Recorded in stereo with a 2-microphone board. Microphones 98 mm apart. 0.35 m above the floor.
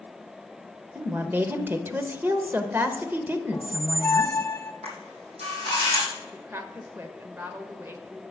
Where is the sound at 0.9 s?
20° right (ahead or behind), 0.8 m.